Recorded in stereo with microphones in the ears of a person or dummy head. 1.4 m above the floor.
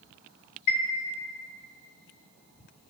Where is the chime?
40° left (ahead or behind), 0.8 m.